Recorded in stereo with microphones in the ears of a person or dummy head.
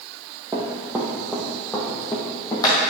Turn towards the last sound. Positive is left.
turn(degrees=25)  # may be behind; listen again after turning